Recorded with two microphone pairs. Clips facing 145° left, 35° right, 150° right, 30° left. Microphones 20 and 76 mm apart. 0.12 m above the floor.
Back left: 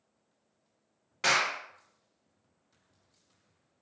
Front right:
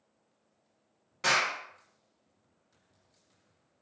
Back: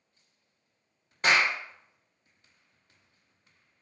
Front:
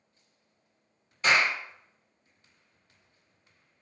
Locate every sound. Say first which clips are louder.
1.2 s a clap: even, even; 155° right, 1.4 m